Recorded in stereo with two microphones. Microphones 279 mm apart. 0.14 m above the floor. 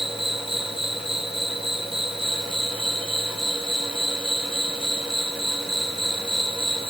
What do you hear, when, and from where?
0.0 s an insect: 20° right (ahead or behind)